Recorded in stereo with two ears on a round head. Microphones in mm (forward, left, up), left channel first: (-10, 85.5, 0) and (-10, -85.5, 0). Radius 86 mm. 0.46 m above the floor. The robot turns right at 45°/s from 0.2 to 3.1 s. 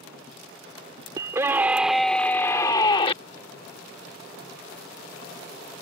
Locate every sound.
1.2 s a scream: 35° right; by 3.1 s 50° left